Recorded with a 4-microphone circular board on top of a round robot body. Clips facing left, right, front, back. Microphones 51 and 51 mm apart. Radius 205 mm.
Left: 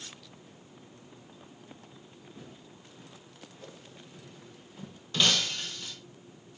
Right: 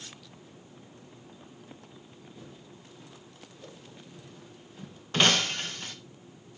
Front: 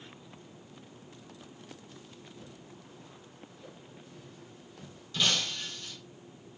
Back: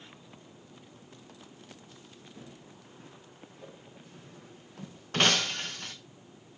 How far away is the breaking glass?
About 0.5 m.